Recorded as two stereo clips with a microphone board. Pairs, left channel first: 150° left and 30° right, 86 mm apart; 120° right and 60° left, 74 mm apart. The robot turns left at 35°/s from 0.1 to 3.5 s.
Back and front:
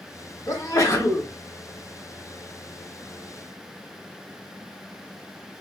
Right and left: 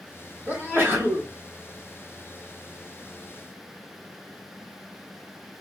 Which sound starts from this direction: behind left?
A sneeze, at 0.5 s.